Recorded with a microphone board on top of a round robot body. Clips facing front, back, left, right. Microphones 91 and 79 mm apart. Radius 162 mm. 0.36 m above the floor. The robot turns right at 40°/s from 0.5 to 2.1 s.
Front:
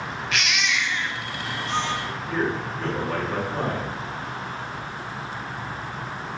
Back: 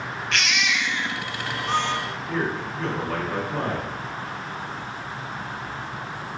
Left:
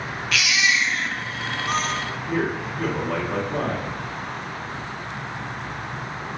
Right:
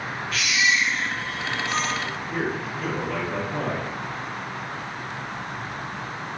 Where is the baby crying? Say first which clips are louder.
Back 1 dB, left 1 dB; 85° left, 0.5 m; by 1.9 s 145° left, 0.5 m.